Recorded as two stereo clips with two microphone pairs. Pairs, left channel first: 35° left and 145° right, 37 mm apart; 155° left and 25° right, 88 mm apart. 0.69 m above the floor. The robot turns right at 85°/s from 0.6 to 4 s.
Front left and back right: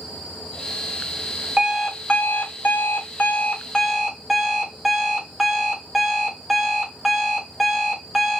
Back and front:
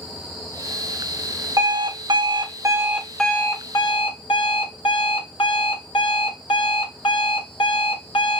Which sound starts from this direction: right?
An alarm clock, at 1.6 s.